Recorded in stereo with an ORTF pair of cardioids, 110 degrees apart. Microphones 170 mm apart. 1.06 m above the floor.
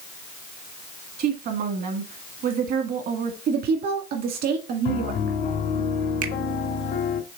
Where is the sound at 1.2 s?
65° right, 1.6 m.